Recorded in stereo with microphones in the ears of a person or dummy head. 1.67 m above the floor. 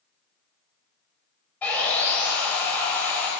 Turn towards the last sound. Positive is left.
turn(degrees=10)  # may be behind; listen again after turning